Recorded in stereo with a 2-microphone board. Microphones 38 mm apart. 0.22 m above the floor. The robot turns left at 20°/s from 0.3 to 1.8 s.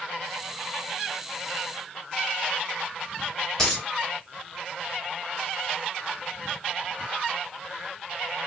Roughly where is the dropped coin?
Centre.